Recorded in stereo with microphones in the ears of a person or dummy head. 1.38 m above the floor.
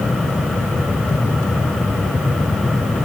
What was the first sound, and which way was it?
Only background noise.